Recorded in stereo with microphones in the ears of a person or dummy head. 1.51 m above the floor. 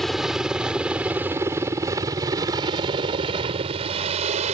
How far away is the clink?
I don't hear a clink.